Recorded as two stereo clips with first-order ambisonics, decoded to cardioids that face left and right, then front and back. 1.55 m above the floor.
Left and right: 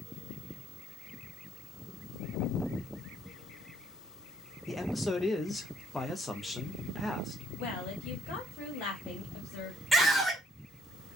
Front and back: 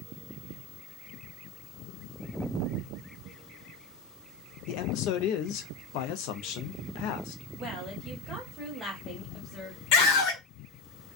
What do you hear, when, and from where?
4.7 s a man speaking: 15° left, 0.5 m
7.6 s a woman speaking: 90° left, 1.3 m
9.9 s a scream: straight ahead, 1.3 m